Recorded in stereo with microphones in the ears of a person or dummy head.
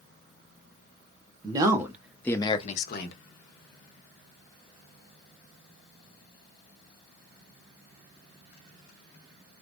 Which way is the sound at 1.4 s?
25° right (ahead or behind).